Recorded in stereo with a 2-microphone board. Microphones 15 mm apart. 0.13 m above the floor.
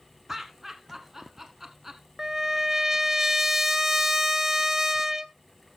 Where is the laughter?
20° right (ahead or behind), 1.2 m.